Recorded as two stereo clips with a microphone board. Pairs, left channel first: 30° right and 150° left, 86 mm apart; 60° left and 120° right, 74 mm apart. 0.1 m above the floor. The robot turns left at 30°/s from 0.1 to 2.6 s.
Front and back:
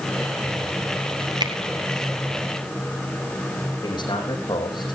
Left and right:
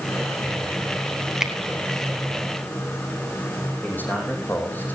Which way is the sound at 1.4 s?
160° left.